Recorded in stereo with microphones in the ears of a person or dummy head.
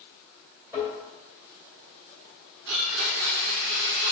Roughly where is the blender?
Right.